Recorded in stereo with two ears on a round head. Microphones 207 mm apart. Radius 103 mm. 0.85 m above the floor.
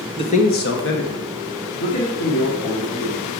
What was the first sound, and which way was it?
A man speaking, 25° left (ahead or behind).